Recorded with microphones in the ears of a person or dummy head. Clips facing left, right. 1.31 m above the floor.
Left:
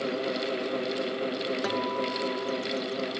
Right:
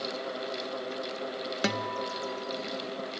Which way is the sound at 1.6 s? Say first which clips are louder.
Left 3 dB; 30° right (ahead or behind).